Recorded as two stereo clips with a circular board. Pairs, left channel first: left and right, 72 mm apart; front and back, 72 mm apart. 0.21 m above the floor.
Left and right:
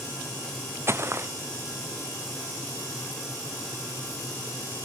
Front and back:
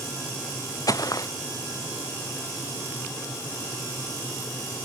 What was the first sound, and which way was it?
Footsteps, 35° right.